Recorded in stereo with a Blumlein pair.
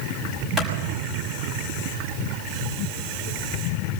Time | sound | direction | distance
0.6 | a clap | 10° right | 6 m